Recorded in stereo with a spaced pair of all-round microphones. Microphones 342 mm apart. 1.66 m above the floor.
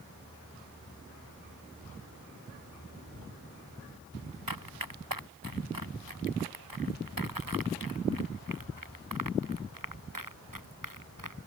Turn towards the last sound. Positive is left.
turn(degrees=-65)  # may be behind; listen again after turning